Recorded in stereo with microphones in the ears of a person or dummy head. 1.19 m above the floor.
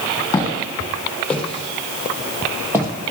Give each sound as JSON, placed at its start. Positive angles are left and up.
{"t": 0.3, "sound": "footsteps", "side_deg": 15, "distance_m": 2.5}